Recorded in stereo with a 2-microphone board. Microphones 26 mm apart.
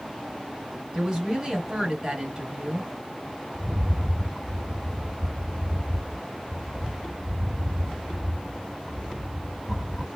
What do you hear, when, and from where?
0.9 s a woman speaking: 15° right (ahead or behind), 1.4 m
3.5 s a rattle: 20° right (ahead or behind), 1.6 m